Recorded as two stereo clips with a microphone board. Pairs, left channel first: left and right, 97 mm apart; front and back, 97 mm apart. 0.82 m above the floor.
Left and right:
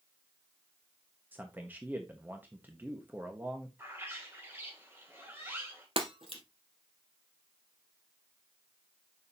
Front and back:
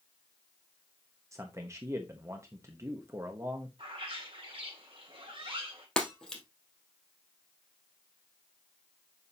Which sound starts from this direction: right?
Breaking glass, at 6.0 s.